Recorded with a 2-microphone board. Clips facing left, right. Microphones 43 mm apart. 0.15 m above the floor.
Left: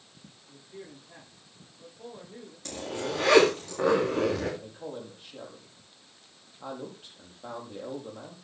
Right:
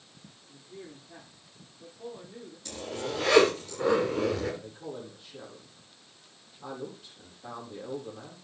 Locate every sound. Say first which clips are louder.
0.5 s a man speaking: even; 30° left (ahead or behind), 9.5 m
2.6 s a zipper: left 2 dB; 60° left (ahead or behind), 7.5 m
4.6 s a man speaking: left 1 dB; 45° left (ahead or behind), 6 m